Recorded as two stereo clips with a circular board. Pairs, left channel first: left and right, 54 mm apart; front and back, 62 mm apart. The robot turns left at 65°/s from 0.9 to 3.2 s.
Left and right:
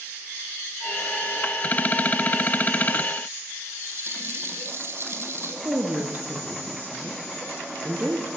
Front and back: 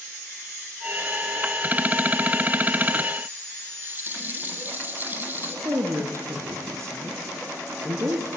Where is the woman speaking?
140° right, 4.5 m.